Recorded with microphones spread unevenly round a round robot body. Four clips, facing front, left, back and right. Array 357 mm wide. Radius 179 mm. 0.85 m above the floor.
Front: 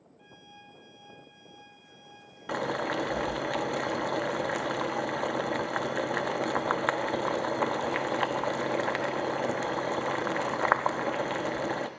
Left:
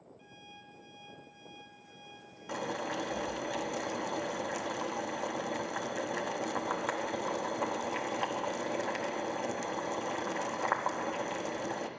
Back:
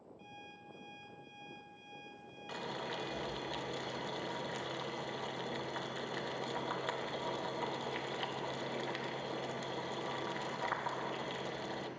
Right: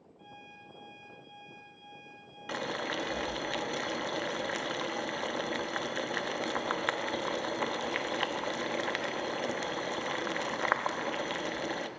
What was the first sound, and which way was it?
An alarm clock, 175° right.